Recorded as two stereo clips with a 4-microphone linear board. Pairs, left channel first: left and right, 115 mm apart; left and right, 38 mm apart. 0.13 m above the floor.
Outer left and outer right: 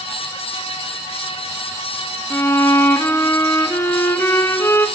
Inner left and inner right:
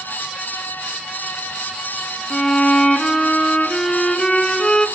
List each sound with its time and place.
2.3 s a violin: 25° left (ahead or behind), 1.5 m